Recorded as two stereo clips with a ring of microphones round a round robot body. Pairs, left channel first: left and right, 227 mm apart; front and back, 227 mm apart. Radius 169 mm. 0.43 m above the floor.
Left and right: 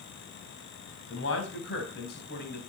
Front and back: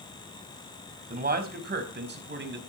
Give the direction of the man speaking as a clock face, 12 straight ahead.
8 o'clock.